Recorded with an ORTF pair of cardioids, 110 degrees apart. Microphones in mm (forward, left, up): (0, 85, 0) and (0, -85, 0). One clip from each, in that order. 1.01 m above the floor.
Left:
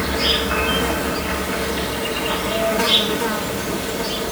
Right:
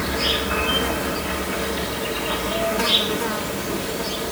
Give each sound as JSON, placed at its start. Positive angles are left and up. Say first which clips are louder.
{"t": 0.0, "sound": "an insect", "louder": "left 3 dB", "azimuth_deg": 15, "distance_m": 1.4}